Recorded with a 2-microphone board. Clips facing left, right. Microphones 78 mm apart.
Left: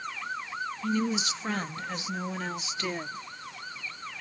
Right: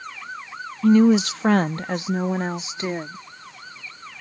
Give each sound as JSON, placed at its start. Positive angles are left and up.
{"t": 0.8, "sound": "a woman speaking", "side_deg": -70}